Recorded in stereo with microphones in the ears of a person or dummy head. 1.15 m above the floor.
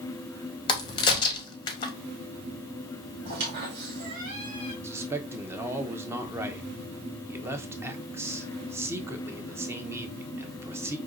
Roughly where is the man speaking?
Centre.